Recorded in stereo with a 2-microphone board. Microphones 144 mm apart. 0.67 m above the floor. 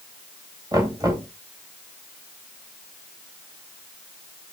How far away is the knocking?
About 3 m.